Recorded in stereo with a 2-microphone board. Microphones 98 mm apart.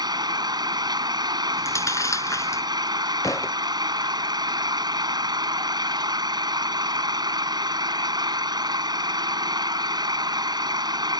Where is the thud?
35° left (ahead or behind).